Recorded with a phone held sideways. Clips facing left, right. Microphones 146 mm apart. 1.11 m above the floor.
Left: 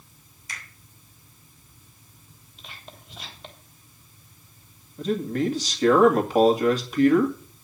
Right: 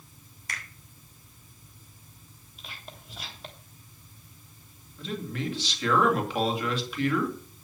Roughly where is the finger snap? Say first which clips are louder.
Right 2 dB; right.